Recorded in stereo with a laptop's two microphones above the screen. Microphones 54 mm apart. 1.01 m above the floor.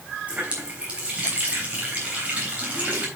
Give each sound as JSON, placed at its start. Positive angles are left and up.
{"t": 0.3, "sound": "a running tap", "side_deg": -25, "distance_m": 3.5}